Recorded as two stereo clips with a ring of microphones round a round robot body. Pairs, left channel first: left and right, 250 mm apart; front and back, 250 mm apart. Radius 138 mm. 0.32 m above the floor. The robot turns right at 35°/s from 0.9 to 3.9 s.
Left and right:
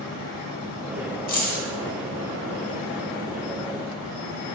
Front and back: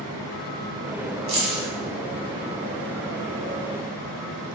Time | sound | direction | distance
1.3 | keys jangling | 135° left | 0.9 m